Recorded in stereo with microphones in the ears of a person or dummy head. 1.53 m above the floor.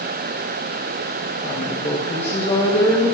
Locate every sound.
1.4 s a woman speaking: 50° left (ahead or behind), 3 m; by 3.1 s 30° left (ahead or behind), 3.5 m